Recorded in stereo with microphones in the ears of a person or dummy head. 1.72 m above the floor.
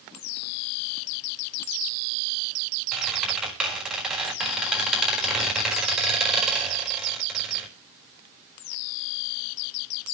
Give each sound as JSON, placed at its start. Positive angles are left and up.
{"t": 2.9, "sound": "a squeak", "side_deg": -5, "distance_m": 4.5}